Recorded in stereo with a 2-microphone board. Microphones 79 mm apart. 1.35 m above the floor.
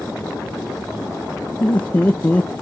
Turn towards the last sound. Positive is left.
turn(degrees=20)  # may be behind; listen again after turning